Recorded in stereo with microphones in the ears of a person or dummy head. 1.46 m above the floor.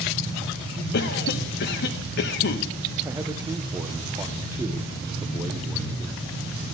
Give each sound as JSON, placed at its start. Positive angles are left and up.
{"t": 0.9, "sound": "a cough", "side_deg": 55, "distance_m": 0.6}
{"t": 3.0, "sound": "a man speaking", "side_deg": -15, "distance_m": 0.8}